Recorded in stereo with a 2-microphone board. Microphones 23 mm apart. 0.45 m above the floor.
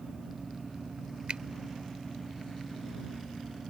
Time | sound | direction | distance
1.3 | a finger snap | 50° right (ahead or behind) | ?